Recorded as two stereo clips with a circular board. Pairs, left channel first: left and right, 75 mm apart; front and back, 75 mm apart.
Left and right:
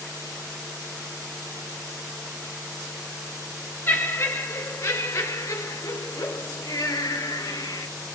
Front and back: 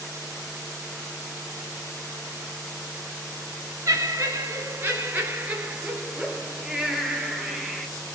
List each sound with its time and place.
3.9 s laughter: 140° left, 3 m; by 7.9 s 85° left, 4 m